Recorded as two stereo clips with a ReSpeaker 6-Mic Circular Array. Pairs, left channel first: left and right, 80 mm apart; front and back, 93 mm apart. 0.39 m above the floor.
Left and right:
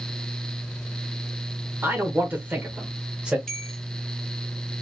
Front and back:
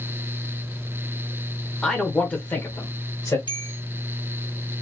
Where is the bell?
5° left, 0.9 m.